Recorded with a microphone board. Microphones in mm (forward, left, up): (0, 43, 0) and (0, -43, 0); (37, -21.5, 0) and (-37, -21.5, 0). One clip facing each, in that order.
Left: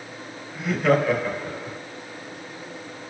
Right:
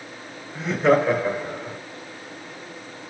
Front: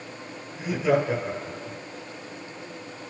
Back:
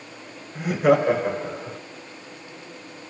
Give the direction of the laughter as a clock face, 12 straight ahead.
5 o'clock.